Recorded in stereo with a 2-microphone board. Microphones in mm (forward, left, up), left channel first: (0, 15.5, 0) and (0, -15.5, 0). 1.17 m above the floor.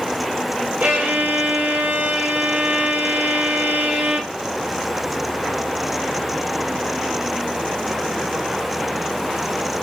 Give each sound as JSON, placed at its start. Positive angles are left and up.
{"t": 0.8, "sound": "a violin", "side_deg": -65, "distance_m": 0.9}